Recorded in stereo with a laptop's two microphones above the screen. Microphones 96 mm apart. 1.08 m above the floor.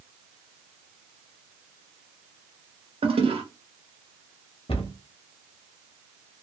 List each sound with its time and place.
3.0 s a toilet flushing: 70° right (ahead or behind), 0.6 m
4.7 s a cupboard door: 65° left (ahead or behind), 0.7 m